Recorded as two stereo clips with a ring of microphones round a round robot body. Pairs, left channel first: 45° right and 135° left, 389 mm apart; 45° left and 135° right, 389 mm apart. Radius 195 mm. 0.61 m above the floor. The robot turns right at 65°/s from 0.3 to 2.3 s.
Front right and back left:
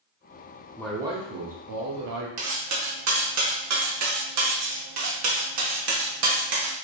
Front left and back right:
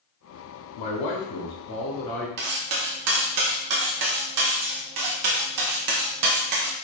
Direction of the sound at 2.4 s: 175° right.